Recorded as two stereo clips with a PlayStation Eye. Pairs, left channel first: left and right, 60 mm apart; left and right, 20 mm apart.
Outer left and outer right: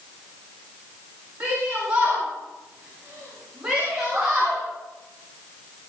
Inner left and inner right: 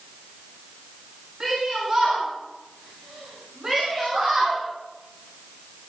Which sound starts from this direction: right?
A shout, at 1.4 s.